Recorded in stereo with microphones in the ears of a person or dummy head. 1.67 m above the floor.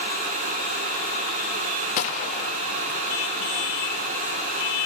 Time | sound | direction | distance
2.0 | a gunshot | 45° left (ahead or behind) | 1.3 m